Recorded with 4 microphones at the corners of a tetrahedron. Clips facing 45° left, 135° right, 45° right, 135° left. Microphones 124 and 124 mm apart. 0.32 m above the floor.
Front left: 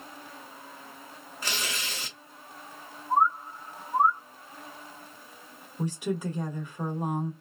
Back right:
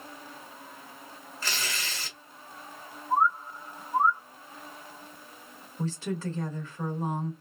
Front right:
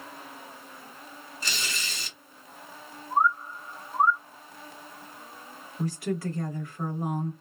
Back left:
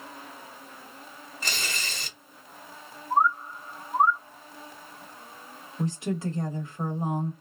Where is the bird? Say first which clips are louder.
Front left 1 dB, back left 1 dB; 65° left, 1.1 m.